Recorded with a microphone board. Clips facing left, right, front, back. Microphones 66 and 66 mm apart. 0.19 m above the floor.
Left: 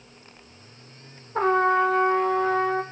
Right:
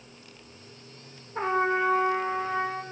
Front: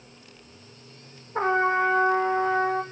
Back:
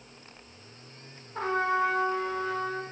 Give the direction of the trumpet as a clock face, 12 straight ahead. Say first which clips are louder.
Left 5 dB, front 5 dB; 10 o'clock.